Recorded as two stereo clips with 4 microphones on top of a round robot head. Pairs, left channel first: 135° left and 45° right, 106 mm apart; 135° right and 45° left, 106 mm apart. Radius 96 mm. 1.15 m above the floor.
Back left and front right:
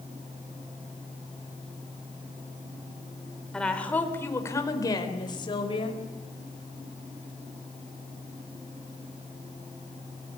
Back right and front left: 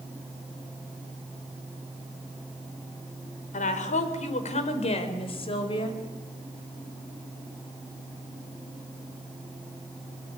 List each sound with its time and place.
3.5 s a woman speaking: 140° right, 4 m; by 6.0 s straight behind, 5 m